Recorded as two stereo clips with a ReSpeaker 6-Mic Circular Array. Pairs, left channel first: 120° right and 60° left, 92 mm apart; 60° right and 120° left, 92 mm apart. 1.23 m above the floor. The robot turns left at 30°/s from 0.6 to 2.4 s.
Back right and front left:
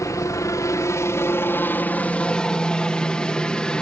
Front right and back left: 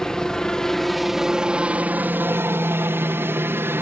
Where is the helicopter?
140° right; by 3.8 s 165° left.